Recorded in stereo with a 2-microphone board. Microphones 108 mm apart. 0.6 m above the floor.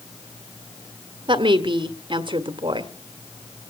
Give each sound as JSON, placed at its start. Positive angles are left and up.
{"t": 1.3, "sound": "a woman speaking", "side_deg": -50, "distance_m": 1.5}